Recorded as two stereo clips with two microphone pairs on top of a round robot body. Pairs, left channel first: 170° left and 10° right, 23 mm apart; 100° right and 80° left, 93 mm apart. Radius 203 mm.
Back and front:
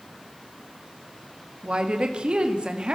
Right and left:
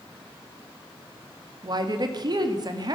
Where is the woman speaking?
35° left, 2 m.